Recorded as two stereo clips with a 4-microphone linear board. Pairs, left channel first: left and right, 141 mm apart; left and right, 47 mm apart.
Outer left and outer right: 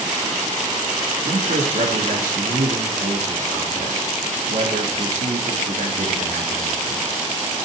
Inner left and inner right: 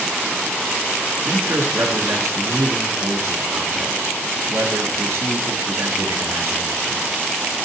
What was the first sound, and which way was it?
A man speaking, 70° right (ahead or behind).